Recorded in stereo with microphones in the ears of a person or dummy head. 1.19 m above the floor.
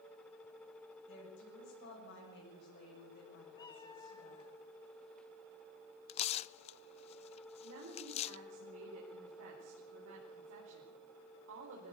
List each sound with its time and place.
1.1 s a woman speaking: 65° left (ahead or behind), 8.5 m; by 4.5 s 45° left (ahead or behind), 6.5 m
3.5 s a cat meowing: 25° left (ahead or behind), 2.5 m
6.1 s tearing paper: 30° left (ahead or behind), 0.5 m
7.6 s a woman speaking: 80° right, 4.5 m